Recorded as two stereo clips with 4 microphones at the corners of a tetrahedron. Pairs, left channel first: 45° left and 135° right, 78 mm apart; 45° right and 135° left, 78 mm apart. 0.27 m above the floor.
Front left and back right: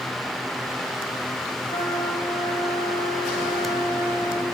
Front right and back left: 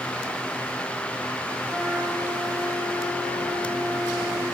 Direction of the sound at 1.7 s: 25° left.